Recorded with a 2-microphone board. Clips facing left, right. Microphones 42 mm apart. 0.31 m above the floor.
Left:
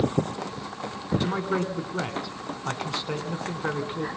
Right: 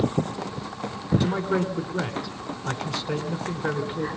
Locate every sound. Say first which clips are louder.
1.2 s a man speaking: right 1 dB; 15° left (ahead or behind), 2.5 m